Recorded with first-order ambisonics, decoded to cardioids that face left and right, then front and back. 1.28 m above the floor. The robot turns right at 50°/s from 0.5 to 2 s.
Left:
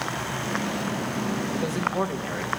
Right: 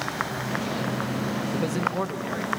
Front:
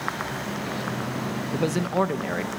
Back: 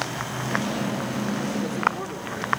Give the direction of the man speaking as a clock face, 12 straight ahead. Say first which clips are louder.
Even, front 2 dB; 12 o'clock.